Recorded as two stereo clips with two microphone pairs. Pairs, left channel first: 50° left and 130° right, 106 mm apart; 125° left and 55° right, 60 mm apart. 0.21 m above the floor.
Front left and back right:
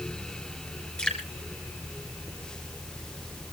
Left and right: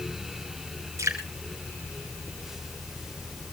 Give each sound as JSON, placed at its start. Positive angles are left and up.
{"t": 1.0, "sound": "dripping", "azimuth_deg": -30, "distance_m": 3.0}